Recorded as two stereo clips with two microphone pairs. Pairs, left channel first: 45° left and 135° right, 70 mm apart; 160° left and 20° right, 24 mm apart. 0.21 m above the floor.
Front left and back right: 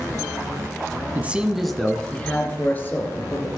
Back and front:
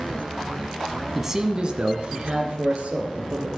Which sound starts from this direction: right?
A man speaking, at 1.1 s.